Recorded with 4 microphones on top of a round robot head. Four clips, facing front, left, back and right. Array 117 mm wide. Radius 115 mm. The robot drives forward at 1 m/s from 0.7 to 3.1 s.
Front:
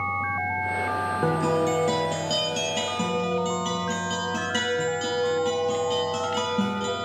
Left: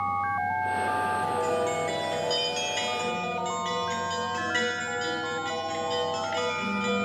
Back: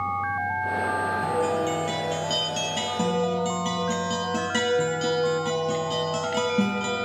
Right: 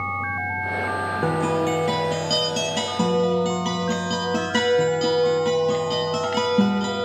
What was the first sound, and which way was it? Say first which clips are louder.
A guitar: right 4 dB, front 4 dB; 50° right.